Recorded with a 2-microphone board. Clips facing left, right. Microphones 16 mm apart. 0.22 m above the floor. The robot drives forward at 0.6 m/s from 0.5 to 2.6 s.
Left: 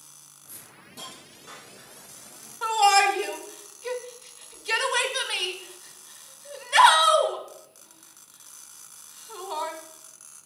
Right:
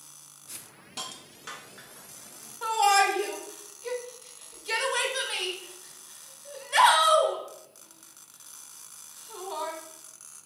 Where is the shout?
20° left (ahead or behind), 1.2 m.